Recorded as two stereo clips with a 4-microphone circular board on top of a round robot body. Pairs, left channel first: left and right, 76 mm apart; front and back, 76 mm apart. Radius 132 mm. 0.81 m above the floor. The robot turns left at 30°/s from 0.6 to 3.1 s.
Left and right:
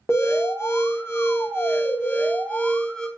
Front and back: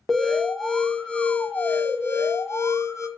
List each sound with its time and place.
0.1 s an alarm: 85° left, 0.7 m; by 3.1 s 10° left, 0.7 m